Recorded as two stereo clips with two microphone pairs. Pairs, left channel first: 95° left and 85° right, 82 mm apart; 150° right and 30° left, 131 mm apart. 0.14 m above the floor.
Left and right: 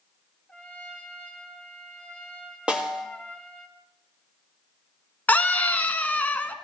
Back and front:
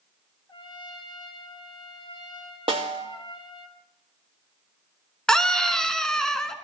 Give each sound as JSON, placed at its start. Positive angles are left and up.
{"t": 0.5, "sound": "a trumpet", "azimuth_deg": 165, "distance_m": 1.6}
{"t": 2.7, "sound": "a snare drum", "azimuth_deg": -10, "distance_m": 2.5}
{"t": 5.3, "sound": "a scream", "azimuth_deg": 130, "distance_m": 1.1}